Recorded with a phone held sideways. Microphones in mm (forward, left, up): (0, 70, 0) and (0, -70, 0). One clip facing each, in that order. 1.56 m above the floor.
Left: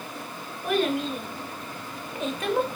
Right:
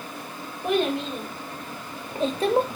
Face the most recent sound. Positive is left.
turn(degrees=-40)  # may be behind; listen again after turning